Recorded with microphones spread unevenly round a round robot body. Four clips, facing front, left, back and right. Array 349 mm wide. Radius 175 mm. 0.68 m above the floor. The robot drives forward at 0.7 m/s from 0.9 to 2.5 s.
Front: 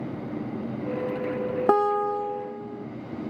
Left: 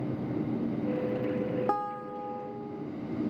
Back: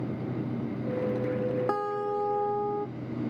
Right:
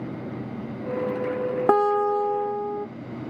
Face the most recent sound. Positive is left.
turn(degrees=-120)